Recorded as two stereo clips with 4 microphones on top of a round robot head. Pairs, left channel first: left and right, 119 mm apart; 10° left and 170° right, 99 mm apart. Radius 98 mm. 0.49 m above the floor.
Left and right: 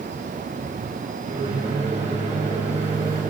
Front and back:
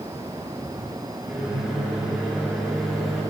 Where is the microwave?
85° right, 4.5 m.